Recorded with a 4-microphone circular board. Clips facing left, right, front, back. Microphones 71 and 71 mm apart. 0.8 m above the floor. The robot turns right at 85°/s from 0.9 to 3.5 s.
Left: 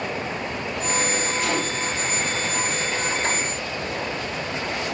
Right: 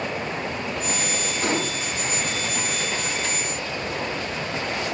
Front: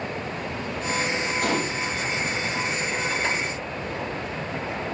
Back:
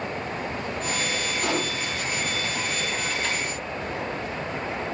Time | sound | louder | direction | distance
1.4 | a gunshot | even, front 1 dB | 35° right | 4.5 m